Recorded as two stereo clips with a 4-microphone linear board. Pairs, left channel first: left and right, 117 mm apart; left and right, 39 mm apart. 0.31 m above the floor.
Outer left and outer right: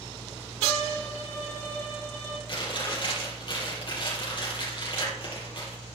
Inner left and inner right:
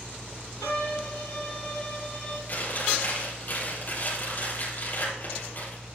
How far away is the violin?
About 3.5 m.